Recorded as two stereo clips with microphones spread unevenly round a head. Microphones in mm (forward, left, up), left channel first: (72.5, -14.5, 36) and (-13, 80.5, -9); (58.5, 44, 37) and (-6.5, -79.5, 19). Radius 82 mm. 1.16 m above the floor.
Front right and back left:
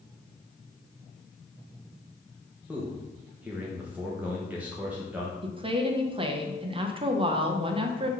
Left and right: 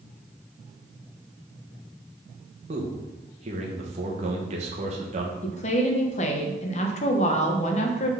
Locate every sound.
2.7 s a man speaking: 155° right, 1.2 m
5.4 s a woman speaking: 105° left, 1.0 m